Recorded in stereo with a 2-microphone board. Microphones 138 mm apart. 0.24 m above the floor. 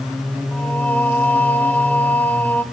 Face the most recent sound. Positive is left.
turn(degrees=15)  # may be behind; listen again after turning